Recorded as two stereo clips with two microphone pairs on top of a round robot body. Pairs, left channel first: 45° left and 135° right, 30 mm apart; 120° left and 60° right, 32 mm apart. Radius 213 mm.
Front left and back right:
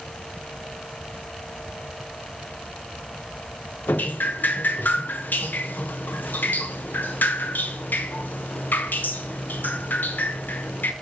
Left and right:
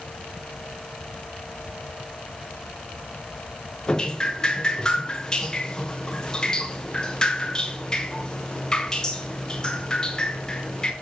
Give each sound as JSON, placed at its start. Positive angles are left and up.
{"t": 3.9, "sound": "dripping", "azimuth_deg": 50, "distance_m": 0.8}